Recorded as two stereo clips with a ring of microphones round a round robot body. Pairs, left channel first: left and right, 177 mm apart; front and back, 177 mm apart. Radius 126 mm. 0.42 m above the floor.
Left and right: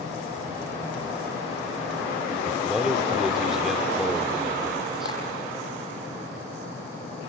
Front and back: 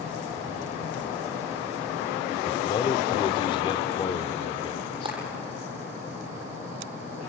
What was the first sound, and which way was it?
A man speaking, 5° right.